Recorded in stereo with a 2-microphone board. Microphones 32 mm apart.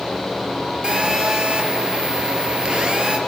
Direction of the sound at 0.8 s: 25° right (ahead or behind).